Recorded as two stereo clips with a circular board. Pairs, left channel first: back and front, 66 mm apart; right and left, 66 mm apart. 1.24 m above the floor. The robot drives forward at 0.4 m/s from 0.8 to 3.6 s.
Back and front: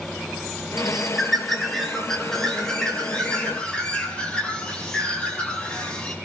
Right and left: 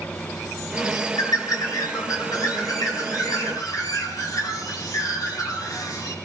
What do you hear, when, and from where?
0.8 s a bird: 85° right, 3 m; by 6.2 s 105° right, 3.5 m